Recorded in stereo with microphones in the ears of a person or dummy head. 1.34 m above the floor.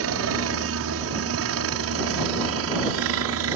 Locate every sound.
0.0 s a helicopter: 65° right (ahead or behind); by 3.6 s 70° right (ahead or behind)